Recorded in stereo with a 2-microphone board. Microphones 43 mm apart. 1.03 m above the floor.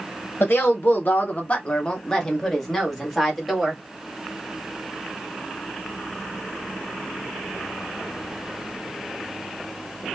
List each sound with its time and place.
0.4 s a woman speaking: 50° left (ahead or behind), 0.8 m; by 3.8 s centre (ahead or behind), 1.8 m